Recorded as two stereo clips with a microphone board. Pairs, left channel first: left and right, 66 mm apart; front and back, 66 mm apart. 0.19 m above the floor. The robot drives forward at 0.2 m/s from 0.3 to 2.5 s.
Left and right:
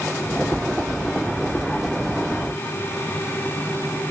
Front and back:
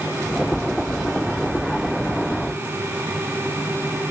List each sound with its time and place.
Only background noise.